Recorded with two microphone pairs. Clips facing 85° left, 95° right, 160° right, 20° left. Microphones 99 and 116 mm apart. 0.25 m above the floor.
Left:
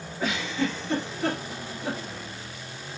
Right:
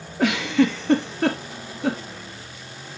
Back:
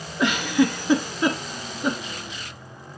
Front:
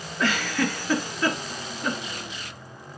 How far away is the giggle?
About 1.4 m.